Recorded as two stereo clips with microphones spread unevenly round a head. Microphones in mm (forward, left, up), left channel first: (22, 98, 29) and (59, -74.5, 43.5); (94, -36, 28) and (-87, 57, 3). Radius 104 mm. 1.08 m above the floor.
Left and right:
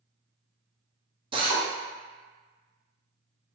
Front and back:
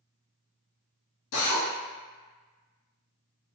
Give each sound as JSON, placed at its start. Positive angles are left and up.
{"t": 1.3, "sound": "a drill", "azimuth_deg": -15, "distance_m": 0.9}